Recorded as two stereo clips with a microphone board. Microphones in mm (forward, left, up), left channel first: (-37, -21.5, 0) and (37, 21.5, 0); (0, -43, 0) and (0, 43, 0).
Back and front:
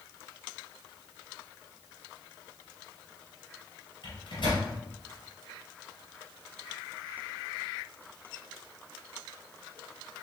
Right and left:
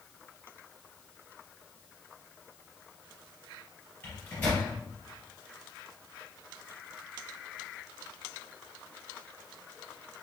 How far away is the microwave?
About 2 m.